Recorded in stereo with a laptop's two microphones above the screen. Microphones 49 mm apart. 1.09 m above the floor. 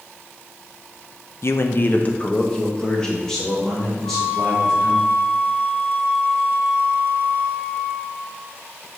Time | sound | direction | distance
1.4 | a man speaking | 60° left (ahead or behind) | 0.6 m
4.0 | a flute | 40° left (ahead or behind) | 1.8 m